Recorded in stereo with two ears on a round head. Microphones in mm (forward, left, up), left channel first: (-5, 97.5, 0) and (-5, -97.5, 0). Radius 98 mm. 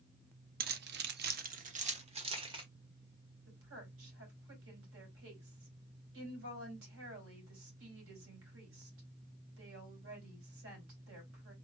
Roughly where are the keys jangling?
Right.